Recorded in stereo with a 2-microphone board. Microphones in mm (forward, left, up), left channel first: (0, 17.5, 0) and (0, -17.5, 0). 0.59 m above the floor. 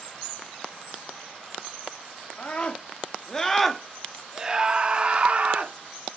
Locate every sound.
2.4 s a scream: 35° left (ahead or behind), 1.1 m; by 5.7 s 40° right (ahead or behind), 1.4 m